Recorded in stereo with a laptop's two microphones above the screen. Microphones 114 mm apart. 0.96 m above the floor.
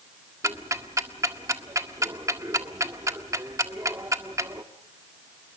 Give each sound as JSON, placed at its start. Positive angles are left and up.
{"t": 0.4, "sound": "ticking", "side_deg": -25, "distance_m": 1.6}